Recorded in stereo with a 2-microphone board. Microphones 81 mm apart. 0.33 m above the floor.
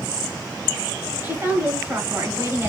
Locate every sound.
1.2 s a woman speaking: 25° right (ahead or behind), 1.7 m